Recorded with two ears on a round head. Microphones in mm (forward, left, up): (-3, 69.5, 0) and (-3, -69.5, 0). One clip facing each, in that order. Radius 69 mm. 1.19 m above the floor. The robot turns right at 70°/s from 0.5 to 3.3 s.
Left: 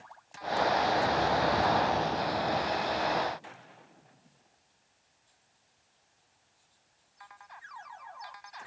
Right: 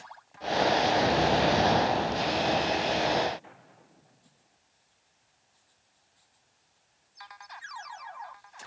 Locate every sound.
Only background noise.